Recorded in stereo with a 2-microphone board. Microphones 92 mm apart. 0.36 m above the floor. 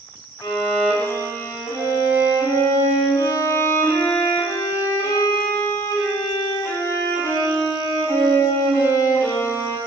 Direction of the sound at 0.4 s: 35° left (ahead or behind).